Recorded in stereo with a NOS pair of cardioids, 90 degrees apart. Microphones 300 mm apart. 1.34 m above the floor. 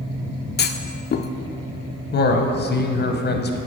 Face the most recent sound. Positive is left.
turn(degrees=35)